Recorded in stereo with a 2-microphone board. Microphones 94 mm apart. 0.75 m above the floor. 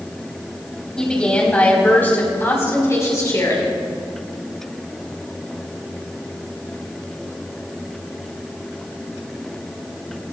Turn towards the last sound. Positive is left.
turn(degrees=40)  # may be behind; listen again after turning